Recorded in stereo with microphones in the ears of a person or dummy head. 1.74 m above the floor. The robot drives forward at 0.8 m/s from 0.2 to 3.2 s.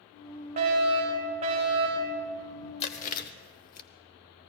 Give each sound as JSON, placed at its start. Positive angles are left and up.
{"t": 0.6, "sound": "a fire alarm", "side_deg": -40, "distance_m": 6.0}
{"t": 2.8, "sound": "chewing", "side_deg": 30, "distance_m": 1.0}